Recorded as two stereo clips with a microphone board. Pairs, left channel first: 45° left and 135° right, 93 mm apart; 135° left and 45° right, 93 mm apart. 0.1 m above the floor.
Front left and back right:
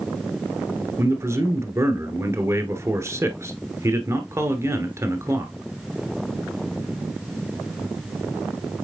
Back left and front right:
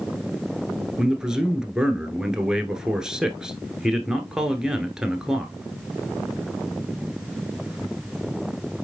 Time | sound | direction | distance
1.0 | a man speaking | 120° right | 1.2 m